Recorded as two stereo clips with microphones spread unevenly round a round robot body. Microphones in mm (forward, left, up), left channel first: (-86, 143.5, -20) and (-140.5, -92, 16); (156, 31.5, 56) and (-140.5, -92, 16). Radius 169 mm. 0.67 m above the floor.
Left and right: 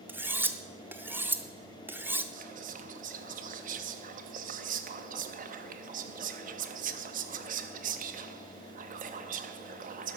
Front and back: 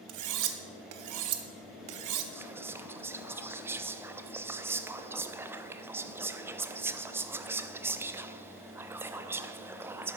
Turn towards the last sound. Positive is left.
turn(degrees=-105)